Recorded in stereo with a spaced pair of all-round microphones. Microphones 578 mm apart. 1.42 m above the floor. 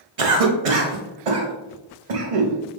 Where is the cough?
70° right (ahead or behind), 0.7 m.